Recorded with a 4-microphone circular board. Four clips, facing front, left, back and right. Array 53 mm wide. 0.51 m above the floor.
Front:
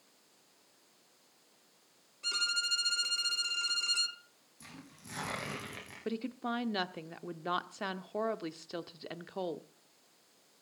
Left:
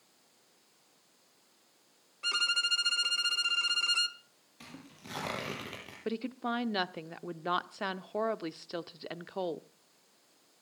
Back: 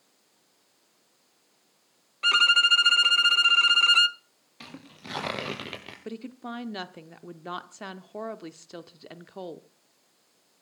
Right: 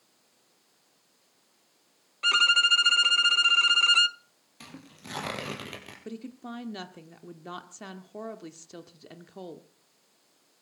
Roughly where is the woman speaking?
Left.